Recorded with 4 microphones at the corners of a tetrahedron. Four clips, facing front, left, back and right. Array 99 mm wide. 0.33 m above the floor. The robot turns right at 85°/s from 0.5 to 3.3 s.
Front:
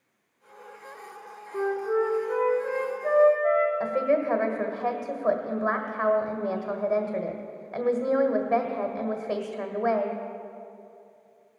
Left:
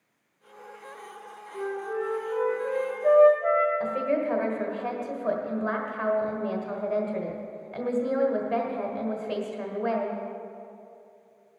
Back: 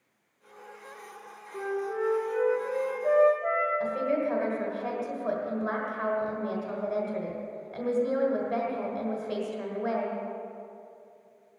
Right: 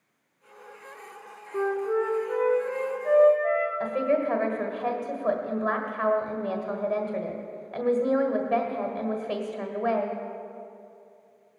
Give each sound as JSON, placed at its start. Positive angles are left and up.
{"t": 1.5, "sound": "a flute", "azimuth_deg": -65, "distance_m": 4.0}
{"t": 3.8, "sound": "a woman speaking", "azimuth_deg": -20, "distance_m": 1.4}